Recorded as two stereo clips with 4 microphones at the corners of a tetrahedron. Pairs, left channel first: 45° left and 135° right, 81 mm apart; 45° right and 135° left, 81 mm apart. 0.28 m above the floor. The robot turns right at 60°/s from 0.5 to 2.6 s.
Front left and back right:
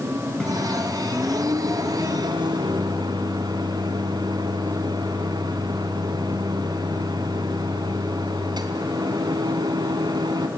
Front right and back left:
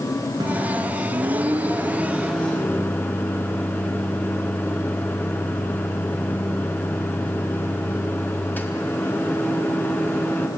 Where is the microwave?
125° left, 2.5 m; by 10.5 s 110° right, 2.5 m.